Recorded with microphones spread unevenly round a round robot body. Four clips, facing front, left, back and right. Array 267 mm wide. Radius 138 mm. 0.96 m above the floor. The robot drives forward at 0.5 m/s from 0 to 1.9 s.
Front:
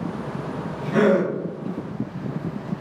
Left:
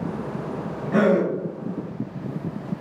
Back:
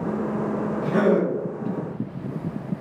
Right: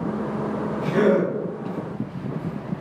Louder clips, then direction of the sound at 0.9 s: Even, front 2 dB; 110° left.